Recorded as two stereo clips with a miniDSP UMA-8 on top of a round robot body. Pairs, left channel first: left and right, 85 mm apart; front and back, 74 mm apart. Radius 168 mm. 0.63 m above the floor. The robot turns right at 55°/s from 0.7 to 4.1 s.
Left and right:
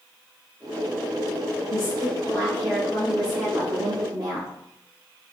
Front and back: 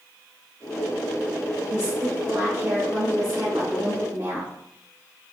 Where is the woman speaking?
100° left, 4.5 m; by 4.5 s 125° right, 4.5 m.